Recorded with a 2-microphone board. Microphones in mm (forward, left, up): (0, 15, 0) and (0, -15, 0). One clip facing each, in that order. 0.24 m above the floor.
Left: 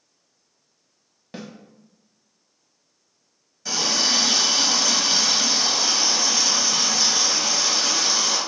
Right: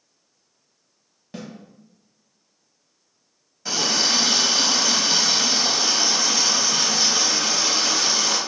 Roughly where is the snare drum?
Centre.